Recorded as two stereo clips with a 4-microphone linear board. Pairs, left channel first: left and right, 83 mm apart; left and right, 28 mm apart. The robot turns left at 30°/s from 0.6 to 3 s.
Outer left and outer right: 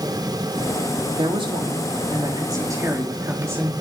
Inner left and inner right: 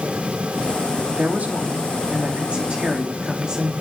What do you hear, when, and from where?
1.1 s a woman speaking: 90° right, 3.5 m; by 3.7 s 150° right, 3.5 m